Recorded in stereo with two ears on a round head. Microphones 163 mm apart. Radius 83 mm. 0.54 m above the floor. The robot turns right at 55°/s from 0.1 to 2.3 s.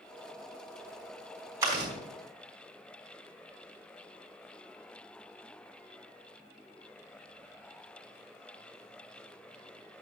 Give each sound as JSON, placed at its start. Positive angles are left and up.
{"t": 1.6, "sound": "chewing", "side_deg": -20, "distance_m": 4.5}